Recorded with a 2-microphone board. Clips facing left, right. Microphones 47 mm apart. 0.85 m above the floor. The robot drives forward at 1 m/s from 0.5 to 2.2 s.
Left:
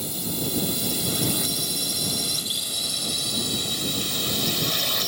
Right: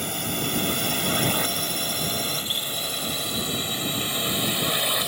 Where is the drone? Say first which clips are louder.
Right 2 dB; 50° right (ahead or behind); by 5.1 s 15° right (ahead or behind).